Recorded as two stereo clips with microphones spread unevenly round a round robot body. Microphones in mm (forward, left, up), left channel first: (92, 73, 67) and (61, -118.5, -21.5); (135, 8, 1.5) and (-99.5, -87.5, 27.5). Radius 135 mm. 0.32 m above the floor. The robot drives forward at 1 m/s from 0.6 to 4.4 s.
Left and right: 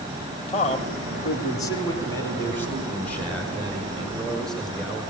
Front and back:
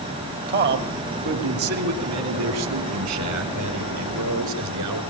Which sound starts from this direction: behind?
A man speaking, at 0.5 s.